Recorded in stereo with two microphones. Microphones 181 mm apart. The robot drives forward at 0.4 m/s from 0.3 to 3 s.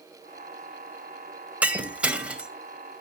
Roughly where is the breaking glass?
Centre.